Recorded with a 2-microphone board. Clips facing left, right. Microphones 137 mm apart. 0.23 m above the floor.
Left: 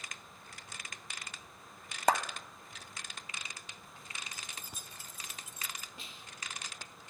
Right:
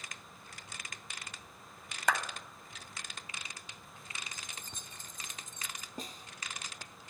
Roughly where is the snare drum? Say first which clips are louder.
Right 7 dB; right.